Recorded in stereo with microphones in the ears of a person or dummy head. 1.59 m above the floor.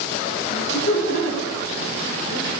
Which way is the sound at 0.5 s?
60° left (ahead or behind).